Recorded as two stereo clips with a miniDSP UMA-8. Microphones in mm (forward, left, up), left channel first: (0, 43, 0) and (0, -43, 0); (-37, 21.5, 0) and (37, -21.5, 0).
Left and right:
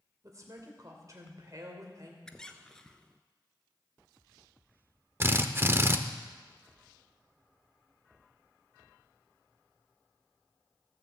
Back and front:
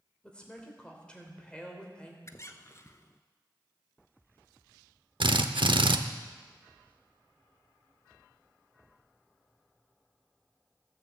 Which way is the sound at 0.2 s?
135° right.